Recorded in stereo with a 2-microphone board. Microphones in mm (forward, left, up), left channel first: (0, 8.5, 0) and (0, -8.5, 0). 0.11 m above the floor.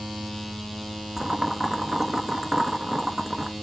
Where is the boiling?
20° right (ahead or behind), 0.9 m.